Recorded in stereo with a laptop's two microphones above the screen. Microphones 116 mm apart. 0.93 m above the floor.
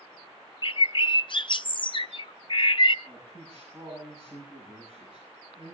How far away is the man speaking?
About 8 m.